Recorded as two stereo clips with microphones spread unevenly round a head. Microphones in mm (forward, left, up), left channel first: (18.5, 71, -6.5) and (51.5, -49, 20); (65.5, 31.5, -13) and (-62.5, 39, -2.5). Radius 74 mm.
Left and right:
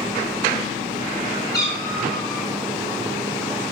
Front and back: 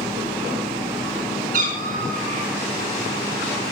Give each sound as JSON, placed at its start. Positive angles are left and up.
{"t": 1.5, "sound": "a cat meowing", "azimuth_deg": 180, "distance_m": 4.0}